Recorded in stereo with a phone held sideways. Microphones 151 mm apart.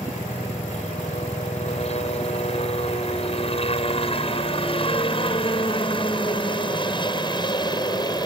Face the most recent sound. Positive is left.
turn(degrees=30)  # may be behind; listen again after turning